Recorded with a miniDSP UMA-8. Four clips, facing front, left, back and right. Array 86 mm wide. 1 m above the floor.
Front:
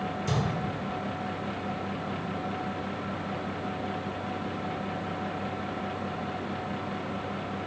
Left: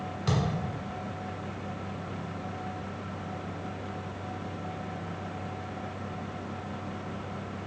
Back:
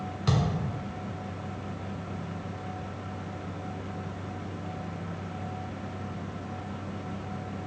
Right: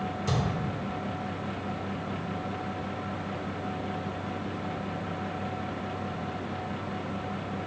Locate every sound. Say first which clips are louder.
0.3 s a thud: left 2 dB, back 3 dB; 150° left, 1.6 m